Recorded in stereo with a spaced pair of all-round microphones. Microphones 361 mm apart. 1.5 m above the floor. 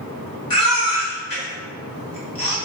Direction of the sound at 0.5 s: 80° left.